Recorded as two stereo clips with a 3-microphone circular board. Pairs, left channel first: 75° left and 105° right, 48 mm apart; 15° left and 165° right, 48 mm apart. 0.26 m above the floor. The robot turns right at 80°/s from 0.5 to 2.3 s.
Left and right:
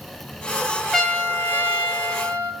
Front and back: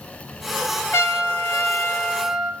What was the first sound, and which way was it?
A trumpet, 5° right.